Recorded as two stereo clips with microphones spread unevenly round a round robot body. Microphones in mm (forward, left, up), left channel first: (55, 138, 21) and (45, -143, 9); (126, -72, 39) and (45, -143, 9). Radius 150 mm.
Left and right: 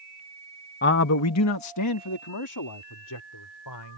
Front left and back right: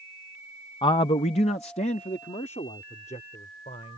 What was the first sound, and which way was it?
A man speaking, 75° left.